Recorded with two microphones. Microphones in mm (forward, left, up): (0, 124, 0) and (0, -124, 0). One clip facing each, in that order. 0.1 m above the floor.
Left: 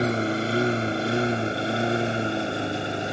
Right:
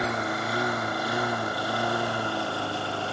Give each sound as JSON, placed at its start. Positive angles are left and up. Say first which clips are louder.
{"t": 0.0, "sound": "a lawn mower", "louder": "left 6 dB", "side_deg": 30}